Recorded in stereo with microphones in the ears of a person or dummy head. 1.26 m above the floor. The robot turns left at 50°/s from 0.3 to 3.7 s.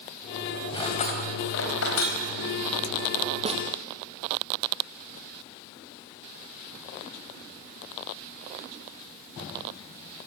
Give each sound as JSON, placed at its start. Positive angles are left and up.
{"t": 0.7, "sound": "cutlery clinking", "side_deg": 30, "distance_m": 4.0}
{"t": 3.5, "sound": "a snare drum", "side_deg": -30, "distance_m": 1.8}